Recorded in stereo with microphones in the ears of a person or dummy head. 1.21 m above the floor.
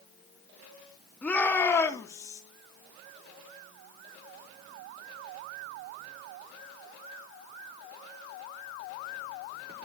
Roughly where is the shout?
Centre.